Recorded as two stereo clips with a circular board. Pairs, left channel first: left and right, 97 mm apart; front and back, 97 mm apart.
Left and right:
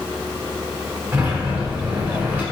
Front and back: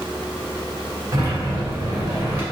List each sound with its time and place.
1.1 s a sliding door: 150° right, 1.3 m